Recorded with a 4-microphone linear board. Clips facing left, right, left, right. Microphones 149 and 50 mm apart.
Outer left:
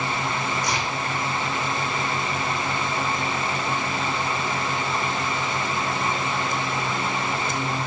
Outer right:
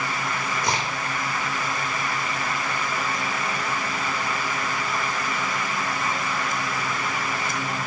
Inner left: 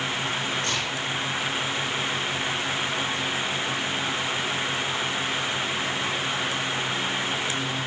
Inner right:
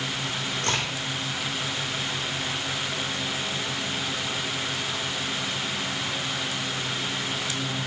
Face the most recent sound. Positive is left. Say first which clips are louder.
# outer right 1 dB, inner right 1 dB
turn(degrees=-55)  # may be behind; listen again after turning